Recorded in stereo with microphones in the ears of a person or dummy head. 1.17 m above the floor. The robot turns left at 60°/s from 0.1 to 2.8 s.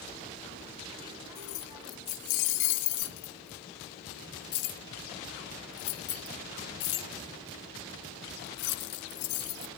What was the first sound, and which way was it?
Keys jangling, 25° left (ahead or behind).